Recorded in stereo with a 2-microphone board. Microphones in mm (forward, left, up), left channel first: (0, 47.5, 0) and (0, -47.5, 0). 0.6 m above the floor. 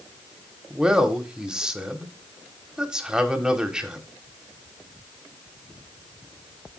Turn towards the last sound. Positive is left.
turn(degrees=-10)  # may be behind; listen again after turning